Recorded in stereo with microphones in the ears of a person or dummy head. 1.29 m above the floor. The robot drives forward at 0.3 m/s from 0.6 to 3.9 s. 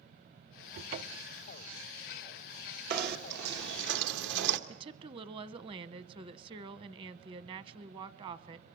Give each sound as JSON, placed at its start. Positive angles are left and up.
{"t": 0.7, "sound": "a cupboard door", "side_deg": -45, "distance_m": 0.5}
{"t": 2.9, "sound": "knocking", "side_deg": -55, "distance_m": 1.5}
{"t": 4.7, "sound": "a woman speaking", "side_deg": -30, "distance_m": 1.1}